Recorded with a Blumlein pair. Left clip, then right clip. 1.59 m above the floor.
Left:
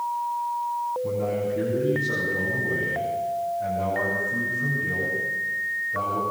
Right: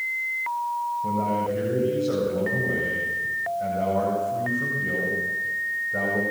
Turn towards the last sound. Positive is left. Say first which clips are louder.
# right 1 dB
turn(degrees=-70)